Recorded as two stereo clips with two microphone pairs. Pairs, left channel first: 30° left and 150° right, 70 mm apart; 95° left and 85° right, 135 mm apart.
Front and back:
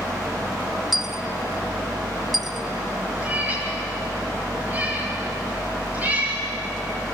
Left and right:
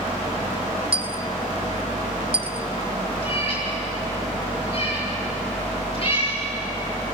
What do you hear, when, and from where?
0.9 s a dropped coin: 65° right, 0.5 m
3.2 s a cat meowing: 145° left, 9 m